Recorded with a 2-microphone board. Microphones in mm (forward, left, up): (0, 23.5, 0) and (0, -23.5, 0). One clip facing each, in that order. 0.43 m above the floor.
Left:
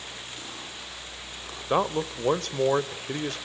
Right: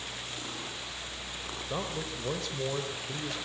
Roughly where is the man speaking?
Left.